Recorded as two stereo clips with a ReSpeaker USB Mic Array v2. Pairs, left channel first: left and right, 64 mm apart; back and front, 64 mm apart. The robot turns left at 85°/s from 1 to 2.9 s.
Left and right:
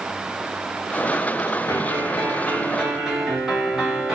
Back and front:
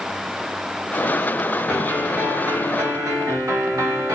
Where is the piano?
95° left, 1.4 m; by 4.2 s 10° right, 1.4 m.